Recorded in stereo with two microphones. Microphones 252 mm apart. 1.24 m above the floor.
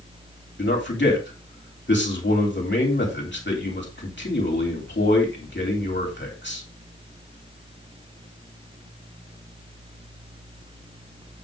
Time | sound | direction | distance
0.6 | a man speaking | 45° left (ahead or behind) | 3 m